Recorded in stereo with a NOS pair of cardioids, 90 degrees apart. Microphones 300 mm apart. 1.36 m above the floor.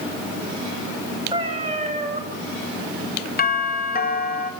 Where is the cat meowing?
15° right, 10 m.